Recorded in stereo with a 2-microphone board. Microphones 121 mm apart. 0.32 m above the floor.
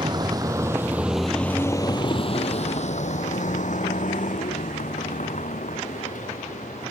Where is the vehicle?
35° right (ahead or behind); by 6.9 s 85° left.